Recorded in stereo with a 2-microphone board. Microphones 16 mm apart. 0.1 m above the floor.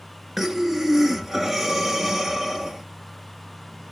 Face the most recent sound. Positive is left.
turn(degrees=-20)  # may be behind; listen again after turning